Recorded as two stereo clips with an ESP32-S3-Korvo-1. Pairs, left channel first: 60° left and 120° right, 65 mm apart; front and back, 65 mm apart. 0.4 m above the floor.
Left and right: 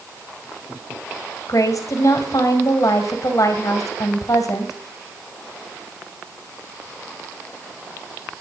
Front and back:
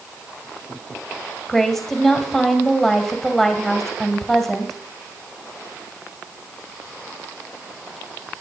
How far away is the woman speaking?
About 2.5 m.